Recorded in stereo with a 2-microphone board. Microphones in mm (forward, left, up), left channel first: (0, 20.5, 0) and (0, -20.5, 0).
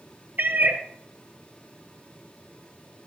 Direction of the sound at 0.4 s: 55° right (ahead or behind).